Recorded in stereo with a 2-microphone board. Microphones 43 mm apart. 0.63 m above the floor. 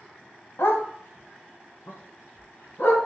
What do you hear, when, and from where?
0.6 s a dog barking: 75° left (ahead or behind), 1.0 m; by 3.0 s 80° left, 2.5 m